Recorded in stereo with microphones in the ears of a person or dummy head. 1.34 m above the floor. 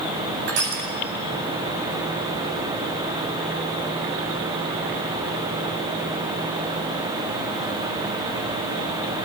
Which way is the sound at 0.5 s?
55° right (ahead or behind).